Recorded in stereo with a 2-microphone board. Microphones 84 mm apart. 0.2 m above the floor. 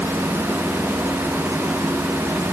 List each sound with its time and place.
Only background noise.